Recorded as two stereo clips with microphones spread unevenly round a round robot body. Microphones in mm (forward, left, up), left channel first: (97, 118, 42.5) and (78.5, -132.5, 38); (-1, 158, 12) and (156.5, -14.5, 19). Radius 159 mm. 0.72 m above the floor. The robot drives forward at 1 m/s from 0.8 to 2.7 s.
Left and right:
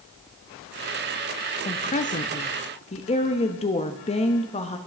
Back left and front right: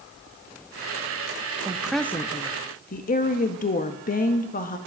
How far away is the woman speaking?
About 1.1 m.